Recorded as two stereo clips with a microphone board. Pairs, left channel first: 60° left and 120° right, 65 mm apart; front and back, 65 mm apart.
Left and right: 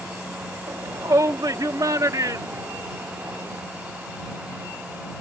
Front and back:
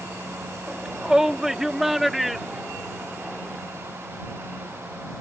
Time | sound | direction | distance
0.7 | a shout | 100° right | ?